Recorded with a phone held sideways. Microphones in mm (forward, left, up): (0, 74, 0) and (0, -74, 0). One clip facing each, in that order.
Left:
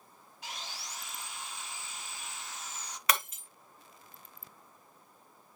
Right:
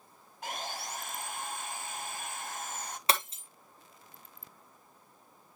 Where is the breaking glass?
30° right (ahead or behind), 1.3 m.